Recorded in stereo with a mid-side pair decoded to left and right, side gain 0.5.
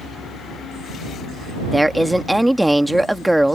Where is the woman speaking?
5° right.